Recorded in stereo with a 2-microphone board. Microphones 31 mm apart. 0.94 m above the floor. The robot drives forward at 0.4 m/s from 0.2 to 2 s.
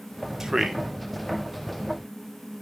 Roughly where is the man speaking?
Centre.